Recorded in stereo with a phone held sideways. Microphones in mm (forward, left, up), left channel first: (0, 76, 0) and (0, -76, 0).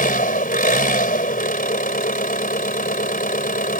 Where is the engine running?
65° left (ahead or behind).